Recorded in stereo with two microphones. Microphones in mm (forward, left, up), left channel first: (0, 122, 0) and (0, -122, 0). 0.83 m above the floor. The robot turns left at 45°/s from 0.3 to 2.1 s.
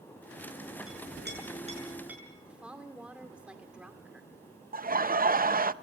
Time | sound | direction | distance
0.9 | a clink | 65° right (ahead or behind) | 7 m
2.5 | a woman speaking | 5° right (ahead or behind) | 2.5 m
4.7 | laughter | 35° right (ahead or behind) | 0.6 m